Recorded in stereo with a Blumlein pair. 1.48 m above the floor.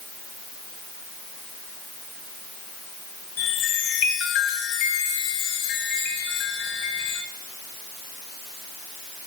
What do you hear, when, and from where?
3.4 s a chime: 45° left, 1.3 m